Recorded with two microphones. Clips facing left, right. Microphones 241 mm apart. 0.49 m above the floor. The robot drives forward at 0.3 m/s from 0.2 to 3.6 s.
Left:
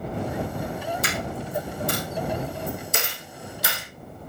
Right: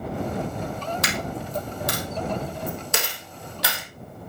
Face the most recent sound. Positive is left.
turn(degrees=-75)  # may be behind; listen again after turning